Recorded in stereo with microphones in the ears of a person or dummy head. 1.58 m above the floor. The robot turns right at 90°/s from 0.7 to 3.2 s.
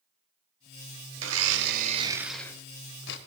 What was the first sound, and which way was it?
A blender, 105° right.